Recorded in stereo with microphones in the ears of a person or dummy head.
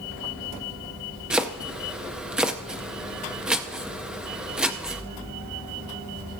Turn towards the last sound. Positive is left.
turn(degrees=-5)  # may be behind; listen again after turning